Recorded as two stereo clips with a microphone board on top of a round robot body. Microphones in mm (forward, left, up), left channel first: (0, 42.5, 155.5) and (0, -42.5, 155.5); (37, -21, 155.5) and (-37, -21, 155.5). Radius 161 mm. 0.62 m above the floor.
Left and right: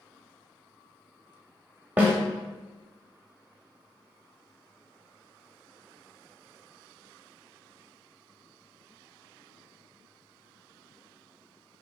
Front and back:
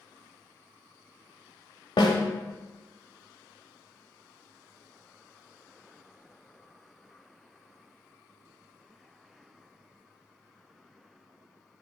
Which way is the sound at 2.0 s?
15° right.